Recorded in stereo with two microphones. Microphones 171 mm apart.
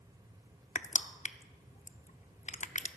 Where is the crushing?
45° left (ahead or behind), 0.5 m.